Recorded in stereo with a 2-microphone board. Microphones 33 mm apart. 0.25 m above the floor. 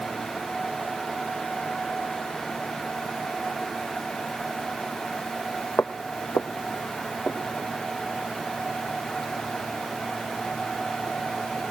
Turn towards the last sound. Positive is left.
turn(degrees=10)  # may be behind; listen again after turning